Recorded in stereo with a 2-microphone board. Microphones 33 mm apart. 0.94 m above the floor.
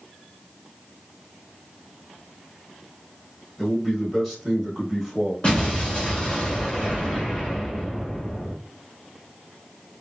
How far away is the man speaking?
About 1.1 m.